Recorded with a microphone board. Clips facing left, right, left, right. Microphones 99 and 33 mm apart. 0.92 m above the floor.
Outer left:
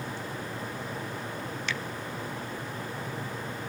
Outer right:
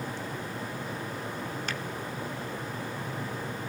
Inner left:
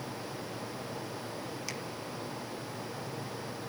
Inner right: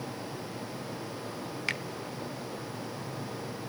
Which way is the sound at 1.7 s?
40° right (ahead or behind).